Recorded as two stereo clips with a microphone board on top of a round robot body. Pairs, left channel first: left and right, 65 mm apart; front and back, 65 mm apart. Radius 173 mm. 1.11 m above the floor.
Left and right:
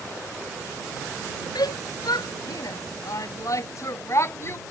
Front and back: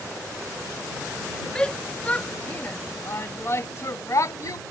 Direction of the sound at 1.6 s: 80° left.